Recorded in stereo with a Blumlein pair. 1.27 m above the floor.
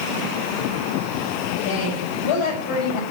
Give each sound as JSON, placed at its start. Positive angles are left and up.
{"t": 1.6, "sound": "a woman speaking", "azimuth_deg": 40, "distance_m": 8.0}